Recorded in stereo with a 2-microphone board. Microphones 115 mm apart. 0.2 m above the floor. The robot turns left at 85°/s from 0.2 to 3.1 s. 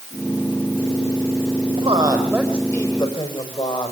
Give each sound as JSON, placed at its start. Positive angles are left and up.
{"t": 1.8, "sound": "a woman speaking", "azimuth_deg": -120, "distance_m": 6.0}